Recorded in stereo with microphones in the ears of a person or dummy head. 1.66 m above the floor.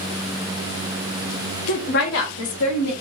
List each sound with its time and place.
1.7 s a woman speaking: 40° left (ahead or behind), 0.6 m; by 2.9 s 65° left (ahead or behind), 1.5 m